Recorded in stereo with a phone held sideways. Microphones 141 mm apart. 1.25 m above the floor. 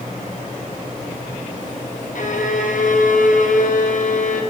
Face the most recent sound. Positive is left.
turn(degrees=65)  # may be behind; listen again after turning